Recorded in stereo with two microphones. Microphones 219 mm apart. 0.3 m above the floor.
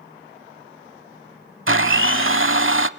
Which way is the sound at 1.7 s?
65° right (ahead or behind).